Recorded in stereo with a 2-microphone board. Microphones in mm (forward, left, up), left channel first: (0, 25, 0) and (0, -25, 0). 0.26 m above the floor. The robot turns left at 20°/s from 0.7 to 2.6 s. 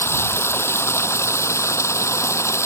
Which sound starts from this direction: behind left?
Running water, at 0.0 s.